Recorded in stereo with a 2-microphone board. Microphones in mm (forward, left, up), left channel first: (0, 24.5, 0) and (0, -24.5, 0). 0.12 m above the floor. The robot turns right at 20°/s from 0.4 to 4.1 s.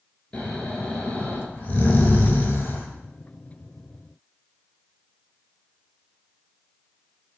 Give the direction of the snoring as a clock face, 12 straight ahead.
11 o'clock.